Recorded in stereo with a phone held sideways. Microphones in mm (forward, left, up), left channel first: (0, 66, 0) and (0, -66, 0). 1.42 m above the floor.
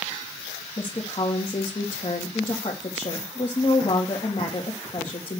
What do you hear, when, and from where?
0.8 s a woman speaking: 45° left (ahead or behind), 1.9 m